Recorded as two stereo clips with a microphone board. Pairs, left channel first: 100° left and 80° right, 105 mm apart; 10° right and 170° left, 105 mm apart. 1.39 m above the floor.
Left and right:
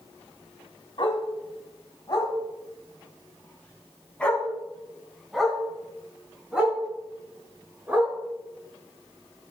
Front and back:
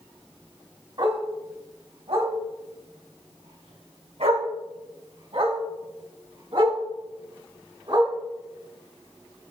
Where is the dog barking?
130° left, 3 m; by 8.1 s 150° right, 5 m.